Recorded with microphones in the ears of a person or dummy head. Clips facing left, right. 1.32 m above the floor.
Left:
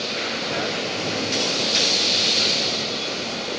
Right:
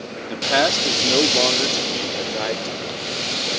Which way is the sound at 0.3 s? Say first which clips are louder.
Right 9 dB; 80° right.